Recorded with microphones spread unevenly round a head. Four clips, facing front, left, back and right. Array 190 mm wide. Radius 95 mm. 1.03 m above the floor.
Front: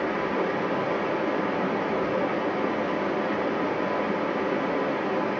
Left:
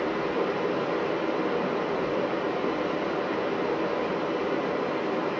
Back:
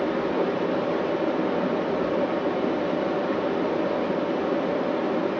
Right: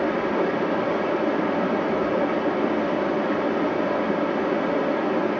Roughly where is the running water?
Behind right.